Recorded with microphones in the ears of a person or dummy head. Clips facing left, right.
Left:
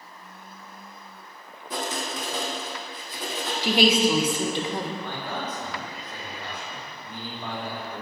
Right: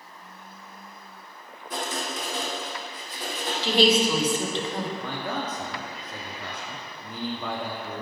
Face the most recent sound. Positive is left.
turn(degrees=-60)  # may be behind; listen again after turning